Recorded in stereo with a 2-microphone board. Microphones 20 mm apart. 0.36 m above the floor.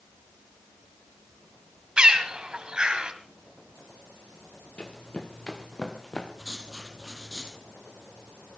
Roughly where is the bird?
Right.